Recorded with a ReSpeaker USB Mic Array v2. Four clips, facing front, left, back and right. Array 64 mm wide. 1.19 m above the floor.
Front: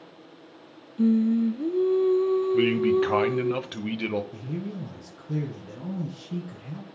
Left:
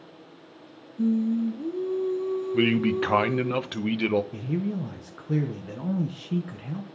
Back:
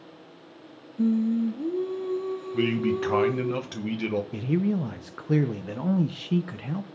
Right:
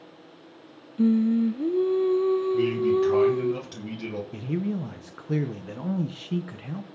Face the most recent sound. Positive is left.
turn(degrees=-165)